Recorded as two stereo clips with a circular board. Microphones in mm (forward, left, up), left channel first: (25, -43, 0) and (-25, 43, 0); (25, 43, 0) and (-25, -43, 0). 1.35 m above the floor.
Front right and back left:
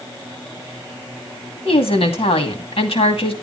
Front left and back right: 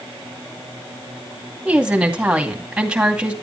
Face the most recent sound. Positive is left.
turn(degrees=-40)